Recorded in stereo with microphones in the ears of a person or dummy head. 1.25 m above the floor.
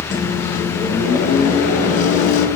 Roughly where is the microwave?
Left.